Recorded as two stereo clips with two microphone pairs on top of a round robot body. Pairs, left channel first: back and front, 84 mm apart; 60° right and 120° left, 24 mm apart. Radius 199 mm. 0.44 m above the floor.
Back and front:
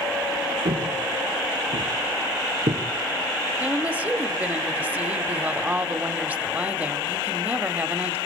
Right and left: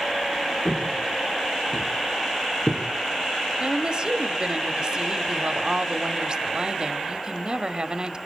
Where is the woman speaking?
70° left, 1.7 m.